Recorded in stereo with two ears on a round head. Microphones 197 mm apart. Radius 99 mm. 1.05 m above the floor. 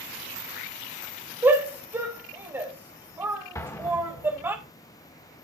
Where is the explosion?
15° left (ahead or behind), 1.5 m.